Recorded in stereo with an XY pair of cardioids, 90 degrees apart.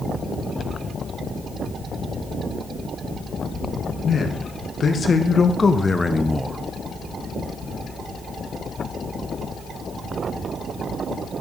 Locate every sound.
4.0 s a man speaking: 60° left, 1.8 m; by 6.6 s 30° right, 0.6 m